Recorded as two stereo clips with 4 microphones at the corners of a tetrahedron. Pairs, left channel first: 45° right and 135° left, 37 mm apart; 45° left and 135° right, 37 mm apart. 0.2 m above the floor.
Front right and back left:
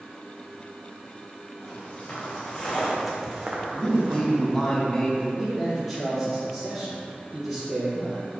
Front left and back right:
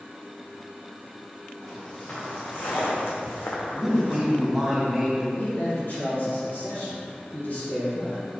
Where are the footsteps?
20° right, 2.0 m; by 4.6 s 100° left, 1.9 m.